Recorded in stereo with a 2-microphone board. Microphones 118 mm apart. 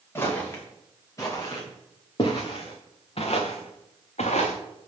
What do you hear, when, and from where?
0.1 s footsteps: 20° left (ahead or behind), 5 m; by 4.5 s 70° left (ahead or behind), 3 m